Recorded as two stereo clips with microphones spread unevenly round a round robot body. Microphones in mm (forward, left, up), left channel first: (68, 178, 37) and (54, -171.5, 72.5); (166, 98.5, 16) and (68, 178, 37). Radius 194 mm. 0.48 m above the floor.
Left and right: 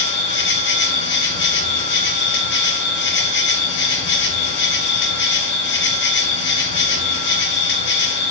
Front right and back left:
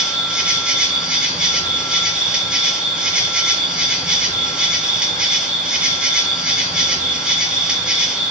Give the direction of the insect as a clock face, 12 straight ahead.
10 o'clock.